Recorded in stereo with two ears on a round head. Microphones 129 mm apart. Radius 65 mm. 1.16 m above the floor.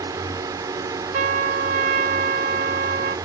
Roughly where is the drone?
Right.